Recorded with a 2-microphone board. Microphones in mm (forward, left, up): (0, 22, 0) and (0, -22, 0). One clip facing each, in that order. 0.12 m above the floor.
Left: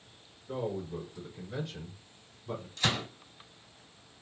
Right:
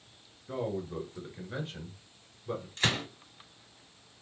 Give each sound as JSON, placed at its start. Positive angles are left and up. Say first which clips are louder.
{"t": 0.5, "sound": "a man speaking", "louder": "right 1 dB", "side_deg": -50, "distance_m": 1.7}
{"t": 2.8, "sound": "a gunshot", "louder": "right 1 dB", "side_deg": -40, "distance_m": 1.7}